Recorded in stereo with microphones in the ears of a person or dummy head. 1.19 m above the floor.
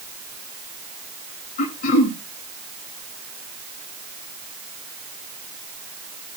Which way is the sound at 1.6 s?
45° left (ahead or behind).